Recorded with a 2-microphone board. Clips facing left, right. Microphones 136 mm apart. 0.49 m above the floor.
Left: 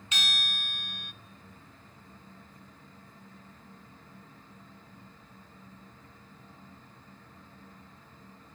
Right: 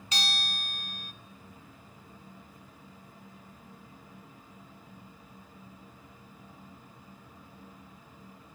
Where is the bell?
35° right (ahead or behind), 0.7 m.